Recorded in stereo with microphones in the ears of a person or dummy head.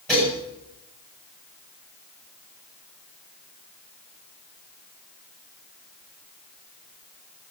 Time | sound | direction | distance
0.1 | dishes clattering | 5° left (ahead or behind) | 8 m